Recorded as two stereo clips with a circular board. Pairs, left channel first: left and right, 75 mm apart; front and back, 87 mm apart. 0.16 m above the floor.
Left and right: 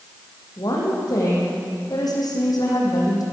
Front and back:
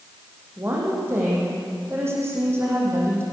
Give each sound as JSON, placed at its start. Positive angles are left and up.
{"t": 0.6, "sound": "a woman speaking", "azimuth_deg": 120, "distance_m": 8.0}